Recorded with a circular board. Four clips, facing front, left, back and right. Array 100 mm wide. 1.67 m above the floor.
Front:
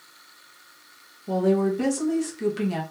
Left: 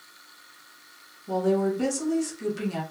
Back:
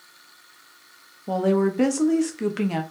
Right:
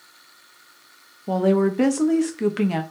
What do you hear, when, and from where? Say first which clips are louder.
1.3 s a woman speaking: right 5 dB, back 1 dB; 125° right, 0.6 m